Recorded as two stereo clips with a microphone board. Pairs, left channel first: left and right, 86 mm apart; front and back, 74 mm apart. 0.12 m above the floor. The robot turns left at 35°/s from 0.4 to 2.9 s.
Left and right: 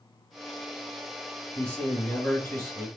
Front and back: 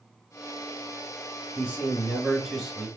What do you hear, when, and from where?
1.6 s a man speaking: 145° left, 1.7 m; by 2.9 s 100° left, 1.7 m